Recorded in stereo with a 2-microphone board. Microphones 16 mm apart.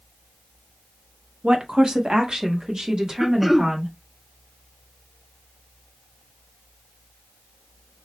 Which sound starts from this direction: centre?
Throat clearing, at 3.2 s.